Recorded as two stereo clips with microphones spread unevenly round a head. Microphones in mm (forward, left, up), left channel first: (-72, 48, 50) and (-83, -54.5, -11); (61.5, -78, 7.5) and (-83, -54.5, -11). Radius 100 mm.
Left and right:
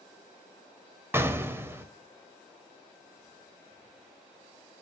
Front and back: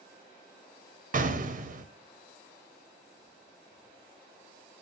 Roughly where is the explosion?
Behind.